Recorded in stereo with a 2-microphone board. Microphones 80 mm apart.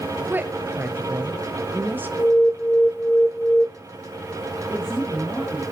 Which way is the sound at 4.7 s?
15° left (ahead or behind).